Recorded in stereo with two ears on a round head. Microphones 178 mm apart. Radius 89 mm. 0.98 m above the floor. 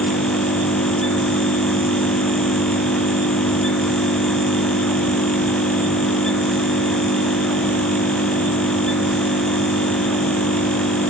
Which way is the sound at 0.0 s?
45° left (ahead or behind).